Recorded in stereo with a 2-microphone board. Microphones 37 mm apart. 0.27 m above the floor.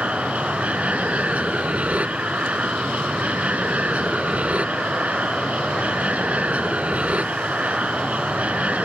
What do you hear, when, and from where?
0.0 s an aircraft: 40° right (ahead or behind)